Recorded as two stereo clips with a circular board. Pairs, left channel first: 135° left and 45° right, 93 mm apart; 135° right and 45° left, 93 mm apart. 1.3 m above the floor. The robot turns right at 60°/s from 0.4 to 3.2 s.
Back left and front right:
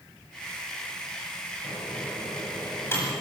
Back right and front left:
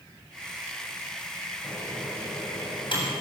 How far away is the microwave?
About 7.5 m.